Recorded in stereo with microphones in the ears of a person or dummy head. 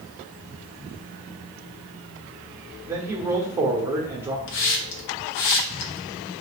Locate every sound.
2.9 s a man speaking: 15° right (ahead or behind), 1.0 m
4.5 s a hiss: 50° left (ahead or behind), 0.6 m